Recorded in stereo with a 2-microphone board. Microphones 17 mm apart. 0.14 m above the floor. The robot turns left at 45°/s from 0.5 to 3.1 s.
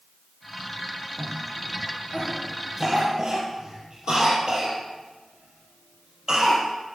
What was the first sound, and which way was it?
A cough, 45° left (ahead or behind).